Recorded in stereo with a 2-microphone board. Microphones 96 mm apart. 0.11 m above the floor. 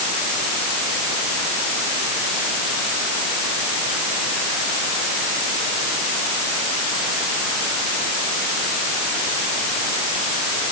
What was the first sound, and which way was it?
Only background noise.